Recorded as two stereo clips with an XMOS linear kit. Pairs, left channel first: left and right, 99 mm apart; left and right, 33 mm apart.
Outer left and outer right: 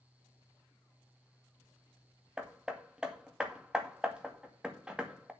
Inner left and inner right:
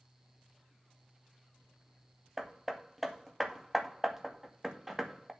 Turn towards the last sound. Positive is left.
turn(degrees=-10)  # may be behind; listen again after turning